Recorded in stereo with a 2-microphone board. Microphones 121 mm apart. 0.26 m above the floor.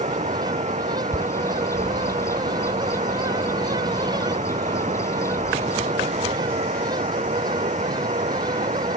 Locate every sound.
0.0 s running water: 75° right (ahead or behind)
1.1 s a bird: 25° left (ahead or behind)